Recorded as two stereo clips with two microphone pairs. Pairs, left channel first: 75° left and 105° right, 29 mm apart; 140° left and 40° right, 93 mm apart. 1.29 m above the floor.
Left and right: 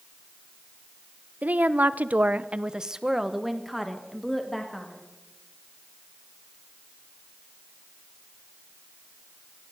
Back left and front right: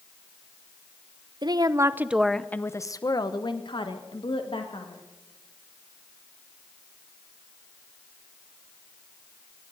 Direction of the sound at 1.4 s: 80° right.